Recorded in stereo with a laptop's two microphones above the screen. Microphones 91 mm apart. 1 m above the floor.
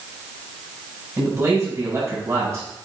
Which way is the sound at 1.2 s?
35° right (ahead or behind).